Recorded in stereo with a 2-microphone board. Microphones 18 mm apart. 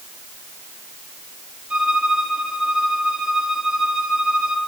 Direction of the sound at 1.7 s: 85° right.